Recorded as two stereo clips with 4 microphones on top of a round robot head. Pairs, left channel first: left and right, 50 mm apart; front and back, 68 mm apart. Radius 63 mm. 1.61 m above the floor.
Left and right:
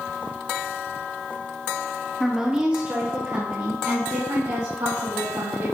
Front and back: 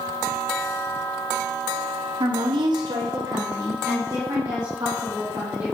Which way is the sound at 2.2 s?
Straight behind.